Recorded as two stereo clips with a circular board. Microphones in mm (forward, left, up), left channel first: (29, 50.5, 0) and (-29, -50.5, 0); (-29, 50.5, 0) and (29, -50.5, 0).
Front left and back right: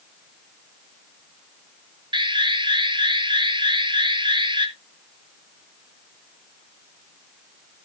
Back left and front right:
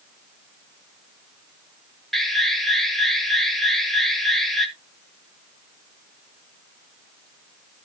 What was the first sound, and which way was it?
An alarm, 150° right.